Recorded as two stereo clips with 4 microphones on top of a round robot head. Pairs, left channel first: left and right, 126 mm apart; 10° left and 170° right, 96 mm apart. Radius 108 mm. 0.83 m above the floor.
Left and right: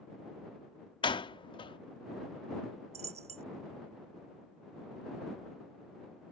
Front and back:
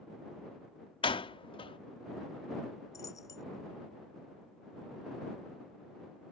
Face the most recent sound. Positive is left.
turn(degrees=-55)